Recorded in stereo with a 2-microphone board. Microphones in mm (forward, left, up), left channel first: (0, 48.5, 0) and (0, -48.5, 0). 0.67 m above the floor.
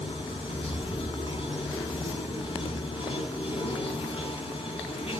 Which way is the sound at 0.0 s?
75° left (ahead or behind).